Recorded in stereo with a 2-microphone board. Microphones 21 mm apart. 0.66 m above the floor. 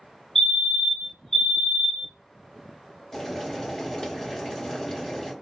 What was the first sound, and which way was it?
A fire alarm, 20° left (ahead or behind).